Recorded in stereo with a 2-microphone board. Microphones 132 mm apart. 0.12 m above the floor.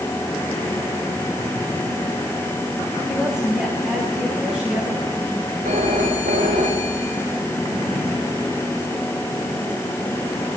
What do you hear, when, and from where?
3.1 s a woman speaking: 5° right (ahead or behind), 10 m
5.7 s a phone ringing: 85° right, 7.5 m